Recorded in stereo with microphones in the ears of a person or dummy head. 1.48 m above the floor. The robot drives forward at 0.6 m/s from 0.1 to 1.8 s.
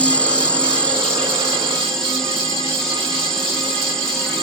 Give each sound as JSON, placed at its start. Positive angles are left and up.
{"t": 0.0, "sound": "an insect", "side_deg": 10}